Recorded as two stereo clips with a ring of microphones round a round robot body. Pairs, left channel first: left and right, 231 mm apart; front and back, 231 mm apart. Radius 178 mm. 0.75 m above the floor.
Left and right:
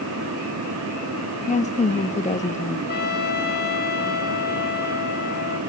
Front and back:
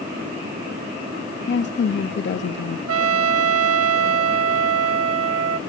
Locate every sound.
1.5 s a woman speaking: 30° left, 1.2 m
2.9 s a trumpet: 150° left, 1.0 m